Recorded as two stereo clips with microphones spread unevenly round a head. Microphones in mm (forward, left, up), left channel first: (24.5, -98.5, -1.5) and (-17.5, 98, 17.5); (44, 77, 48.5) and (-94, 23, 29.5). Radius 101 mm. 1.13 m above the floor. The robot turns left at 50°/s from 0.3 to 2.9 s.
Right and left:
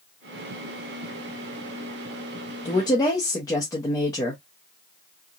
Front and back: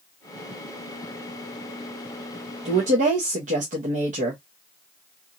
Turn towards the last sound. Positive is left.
turn(degrees=-145)